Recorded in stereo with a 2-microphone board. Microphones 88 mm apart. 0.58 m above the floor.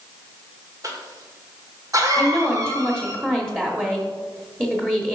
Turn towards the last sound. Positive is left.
turn(degrees=-20)  # may be behind; listen again after turning